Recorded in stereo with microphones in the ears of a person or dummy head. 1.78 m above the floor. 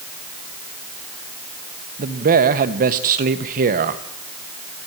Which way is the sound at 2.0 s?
50° right (ahead or behind).